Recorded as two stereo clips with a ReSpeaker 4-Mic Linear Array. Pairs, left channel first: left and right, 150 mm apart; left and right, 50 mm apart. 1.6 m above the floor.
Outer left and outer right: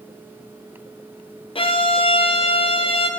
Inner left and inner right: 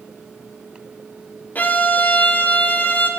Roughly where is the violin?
Left.